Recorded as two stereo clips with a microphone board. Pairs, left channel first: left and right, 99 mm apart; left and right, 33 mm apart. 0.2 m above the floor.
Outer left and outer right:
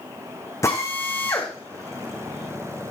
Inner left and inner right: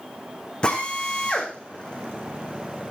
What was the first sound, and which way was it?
A drill, 30° left (ahead or behind).